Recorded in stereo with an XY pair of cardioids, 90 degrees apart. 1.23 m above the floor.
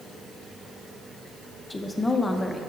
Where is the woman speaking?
25° left, 1.0 m.